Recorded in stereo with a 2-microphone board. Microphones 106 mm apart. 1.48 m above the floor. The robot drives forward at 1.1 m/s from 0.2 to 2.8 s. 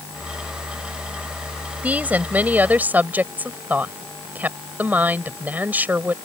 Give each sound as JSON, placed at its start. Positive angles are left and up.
{"t": 1.8, "sound": "a woman speaking", "side_deg": -15}